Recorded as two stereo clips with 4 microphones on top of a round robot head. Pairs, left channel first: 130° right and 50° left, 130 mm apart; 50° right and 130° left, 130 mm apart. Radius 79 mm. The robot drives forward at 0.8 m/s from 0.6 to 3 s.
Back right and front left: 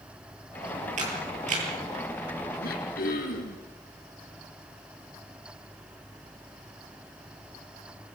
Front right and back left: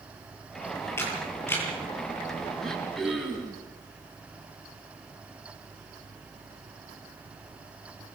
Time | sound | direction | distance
1.0 | a camera shutter | 20° left | 9 m
2.6 | throat clearing | 140° right | 6 m